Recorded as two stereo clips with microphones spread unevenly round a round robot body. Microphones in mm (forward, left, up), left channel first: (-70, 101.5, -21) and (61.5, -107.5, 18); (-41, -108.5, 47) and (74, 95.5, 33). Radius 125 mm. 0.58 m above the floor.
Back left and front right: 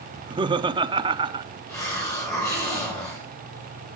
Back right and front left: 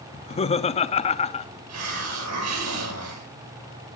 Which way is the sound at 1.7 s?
45° left.